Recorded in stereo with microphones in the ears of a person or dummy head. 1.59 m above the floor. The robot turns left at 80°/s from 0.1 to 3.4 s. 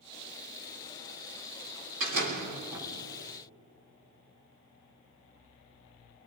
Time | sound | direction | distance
2.0 | a door slam | 100° right | 3.5 m